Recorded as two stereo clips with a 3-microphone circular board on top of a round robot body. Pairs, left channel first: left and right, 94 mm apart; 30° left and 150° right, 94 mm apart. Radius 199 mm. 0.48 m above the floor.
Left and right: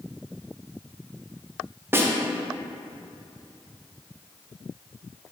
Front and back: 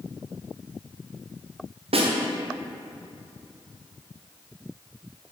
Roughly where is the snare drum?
Behind right.